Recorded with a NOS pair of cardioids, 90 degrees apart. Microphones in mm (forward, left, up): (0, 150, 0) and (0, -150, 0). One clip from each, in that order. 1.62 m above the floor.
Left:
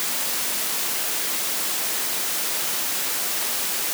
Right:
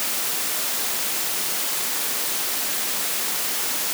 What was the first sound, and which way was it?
Only background noise.